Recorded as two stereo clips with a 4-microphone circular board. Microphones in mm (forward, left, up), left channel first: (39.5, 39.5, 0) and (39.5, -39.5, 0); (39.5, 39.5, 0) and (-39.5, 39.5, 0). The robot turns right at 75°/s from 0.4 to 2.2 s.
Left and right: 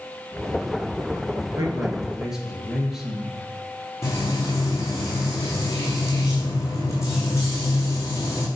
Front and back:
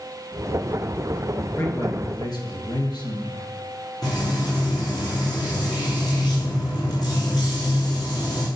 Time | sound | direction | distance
1.6 | a man speaking | 55° right | 2.5 m
4.0 | frying | 35° left | 2.5 m